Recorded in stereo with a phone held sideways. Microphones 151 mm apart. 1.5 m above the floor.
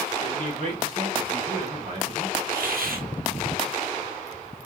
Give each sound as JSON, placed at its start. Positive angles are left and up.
{"t": 0.2, "sound": "a man speaking", "side_deg": -40, "distance_m": 1.6}
{"t": 2.5, "sound": "a hiss", "side_deg": -75, "distance_m": 0.8}